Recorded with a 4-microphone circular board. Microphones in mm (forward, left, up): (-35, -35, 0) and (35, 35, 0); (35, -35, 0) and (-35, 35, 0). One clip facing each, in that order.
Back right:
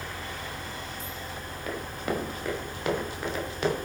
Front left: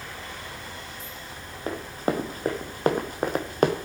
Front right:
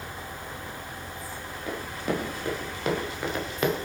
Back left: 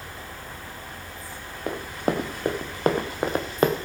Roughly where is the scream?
I don't hear a scream.